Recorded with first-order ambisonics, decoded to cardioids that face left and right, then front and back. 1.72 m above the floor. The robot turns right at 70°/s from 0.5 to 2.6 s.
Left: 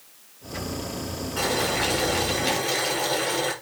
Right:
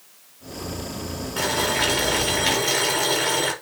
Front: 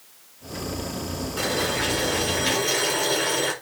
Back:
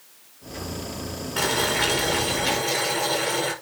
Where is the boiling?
155° right, 5 m; by 3.5 s 70° right, 5 m.